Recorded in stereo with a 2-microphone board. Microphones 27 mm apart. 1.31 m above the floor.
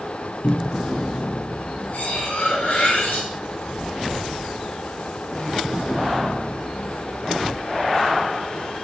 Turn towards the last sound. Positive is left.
turn(degrees=80)